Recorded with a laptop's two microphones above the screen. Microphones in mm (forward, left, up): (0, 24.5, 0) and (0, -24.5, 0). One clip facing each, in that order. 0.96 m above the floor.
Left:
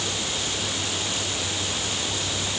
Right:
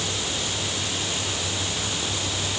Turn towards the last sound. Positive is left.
No sound to turn to.